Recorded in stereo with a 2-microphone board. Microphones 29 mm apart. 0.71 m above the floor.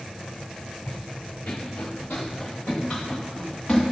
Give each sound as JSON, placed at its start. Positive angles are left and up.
{"t": 0.9, "sound": "running footsteps", "side_deg": 65, "distance_m": 1.9}